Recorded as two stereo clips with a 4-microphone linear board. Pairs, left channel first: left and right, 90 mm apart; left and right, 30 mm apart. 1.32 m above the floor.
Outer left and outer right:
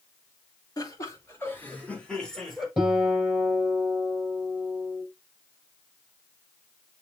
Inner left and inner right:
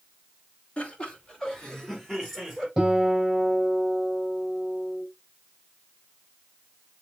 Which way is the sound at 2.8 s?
10° right (ahead or behind).